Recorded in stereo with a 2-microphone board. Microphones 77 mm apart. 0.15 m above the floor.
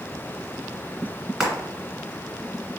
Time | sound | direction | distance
1.4 | frying | 10° right (ahead or behind) | 1.9 m